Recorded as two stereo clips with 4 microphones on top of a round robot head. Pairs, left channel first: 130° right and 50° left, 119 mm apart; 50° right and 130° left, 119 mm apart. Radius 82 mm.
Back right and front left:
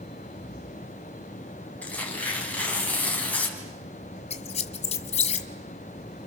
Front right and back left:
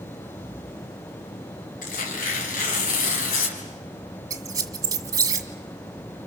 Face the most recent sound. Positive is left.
turn(degrees=-165)